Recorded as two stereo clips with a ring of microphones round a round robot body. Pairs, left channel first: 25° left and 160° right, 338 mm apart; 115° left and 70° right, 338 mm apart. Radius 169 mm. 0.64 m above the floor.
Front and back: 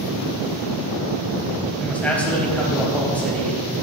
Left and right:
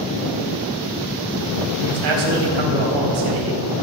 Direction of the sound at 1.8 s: 65° right.